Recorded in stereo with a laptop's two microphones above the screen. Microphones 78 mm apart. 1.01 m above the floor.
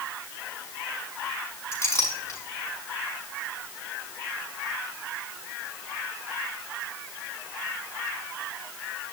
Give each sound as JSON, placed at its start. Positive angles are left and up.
{"t": 1.7, "sound": "a clink", "side_deg": 35, "distance_m": 6.5}